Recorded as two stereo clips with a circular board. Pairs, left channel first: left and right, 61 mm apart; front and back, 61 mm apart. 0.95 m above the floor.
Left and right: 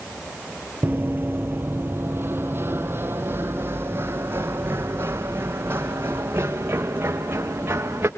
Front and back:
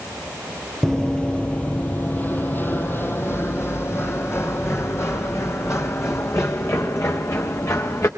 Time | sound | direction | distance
0.8 | running footsteps | 80° right | 1.1 m